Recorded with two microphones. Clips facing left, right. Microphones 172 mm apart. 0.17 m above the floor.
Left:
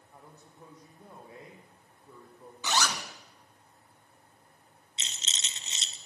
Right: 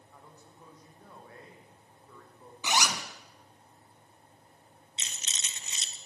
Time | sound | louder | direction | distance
0.1 | a man speaking | left 2 dB | 20° left (ahead or behind) | 7 m
2.6 | a zipper | even | 15° right (ahead or behind) | 1.8 m
5.0 | a rattle | left 2 dB | 25° left (ahead or behind) | 1.3 m